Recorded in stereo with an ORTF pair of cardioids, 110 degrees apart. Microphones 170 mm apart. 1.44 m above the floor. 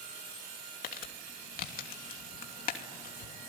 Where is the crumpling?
55° left, 3 m.